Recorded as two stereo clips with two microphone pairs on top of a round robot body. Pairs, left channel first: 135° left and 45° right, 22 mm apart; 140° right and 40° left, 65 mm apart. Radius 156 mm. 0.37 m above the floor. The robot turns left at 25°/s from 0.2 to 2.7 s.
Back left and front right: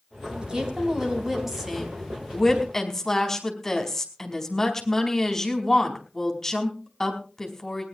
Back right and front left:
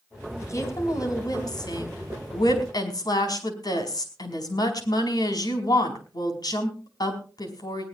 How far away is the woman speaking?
About 5 m.